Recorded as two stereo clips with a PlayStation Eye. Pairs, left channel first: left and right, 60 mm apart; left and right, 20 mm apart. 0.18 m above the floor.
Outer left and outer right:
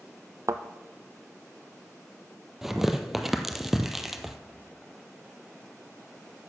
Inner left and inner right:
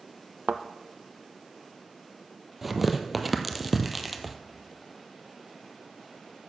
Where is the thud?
65° right (ahead or behind), 0.6 m.